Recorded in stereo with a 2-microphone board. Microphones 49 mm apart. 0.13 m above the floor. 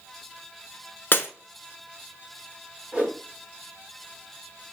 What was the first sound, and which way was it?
Breaking glass, 45° left (ahead or behind).